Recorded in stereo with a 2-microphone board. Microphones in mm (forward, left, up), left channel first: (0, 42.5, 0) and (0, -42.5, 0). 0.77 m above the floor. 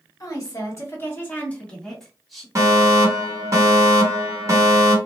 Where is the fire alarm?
35° right (ahead or behind), 1.7 m.